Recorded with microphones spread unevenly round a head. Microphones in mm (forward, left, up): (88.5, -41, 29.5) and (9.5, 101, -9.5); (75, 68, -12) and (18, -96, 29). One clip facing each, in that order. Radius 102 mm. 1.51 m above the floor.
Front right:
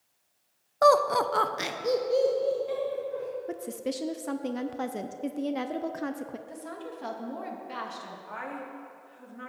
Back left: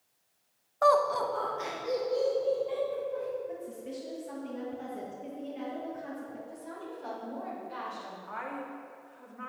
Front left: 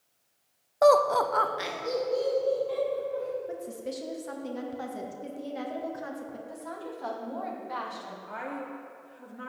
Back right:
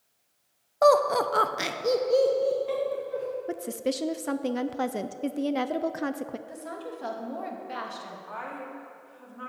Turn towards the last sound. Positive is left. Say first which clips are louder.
# front right 1 dB, front left 3 dB
turn(degrees=-5)